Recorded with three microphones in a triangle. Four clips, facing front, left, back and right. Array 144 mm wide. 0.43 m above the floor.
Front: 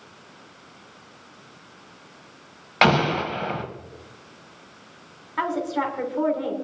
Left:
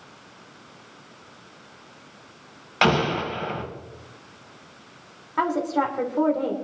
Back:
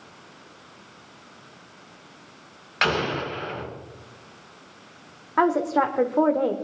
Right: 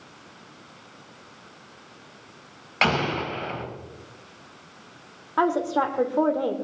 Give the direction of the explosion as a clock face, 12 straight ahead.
12 o'clock.